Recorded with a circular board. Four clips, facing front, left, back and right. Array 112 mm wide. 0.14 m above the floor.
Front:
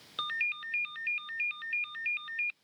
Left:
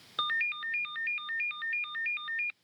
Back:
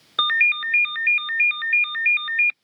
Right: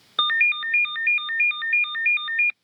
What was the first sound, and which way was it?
A ringtone, 145° right.